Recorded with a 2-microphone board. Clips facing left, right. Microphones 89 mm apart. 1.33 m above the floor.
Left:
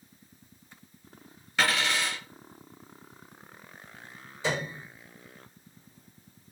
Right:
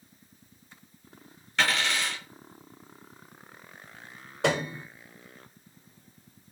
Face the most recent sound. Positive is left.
turn(degrees=-65)  # may be behind; listen again after turning